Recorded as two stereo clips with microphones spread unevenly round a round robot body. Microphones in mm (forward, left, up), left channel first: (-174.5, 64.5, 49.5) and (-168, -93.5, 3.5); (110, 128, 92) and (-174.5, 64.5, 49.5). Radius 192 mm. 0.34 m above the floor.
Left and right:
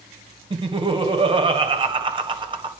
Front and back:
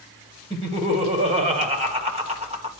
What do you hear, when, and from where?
0.5 s laughter: 110° right, 2 m